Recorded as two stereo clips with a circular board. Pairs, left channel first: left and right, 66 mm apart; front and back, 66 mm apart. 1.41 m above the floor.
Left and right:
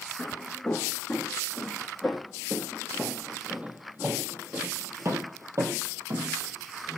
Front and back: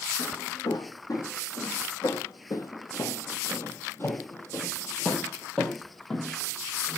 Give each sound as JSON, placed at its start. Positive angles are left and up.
{"t": 0.2, "sound": "footsteps", "azimuth_deg": 15, "distance_m": 3.5}